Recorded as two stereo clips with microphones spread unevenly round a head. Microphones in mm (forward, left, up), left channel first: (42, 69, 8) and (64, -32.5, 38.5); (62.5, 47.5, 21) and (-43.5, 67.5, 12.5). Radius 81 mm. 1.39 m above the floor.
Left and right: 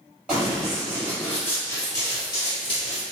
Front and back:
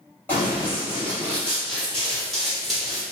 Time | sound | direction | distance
0.3 | running footsteps | 55° right | 1.5 m